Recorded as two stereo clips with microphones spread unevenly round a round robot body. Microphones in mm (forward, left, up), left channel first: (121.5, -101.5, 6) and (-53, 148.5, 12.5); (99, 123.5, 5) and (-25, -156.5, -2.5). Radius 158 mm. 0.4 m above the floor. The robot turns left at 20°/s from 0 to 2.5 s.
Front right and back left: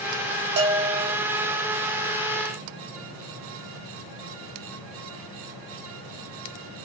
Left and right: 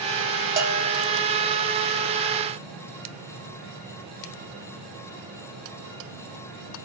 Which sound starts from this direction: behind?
A bell, at 0.6 s.